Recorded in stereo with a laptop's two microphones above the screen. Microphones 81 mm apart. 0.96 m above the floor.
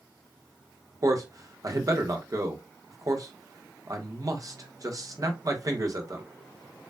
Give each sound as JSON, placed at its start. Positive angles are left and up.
{"t": 1.0, "sound": "a man speaking", "side_deg": -45, "distance_m": 1.2}